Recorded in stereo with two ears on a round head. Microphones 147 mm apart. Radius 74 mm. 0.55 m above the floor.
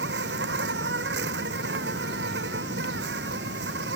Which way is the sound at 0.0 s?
70° right (ahead or behind).